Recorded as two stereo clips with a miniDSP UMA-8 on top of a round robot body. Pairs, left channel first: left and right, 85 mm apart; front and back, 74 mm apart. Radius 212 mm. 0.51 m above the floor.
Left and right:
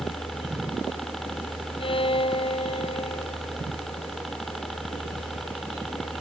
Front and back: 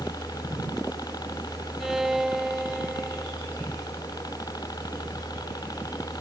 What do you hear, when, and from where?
0.0 s a helicopter: straight ahead
1.8 s a violin: 95° left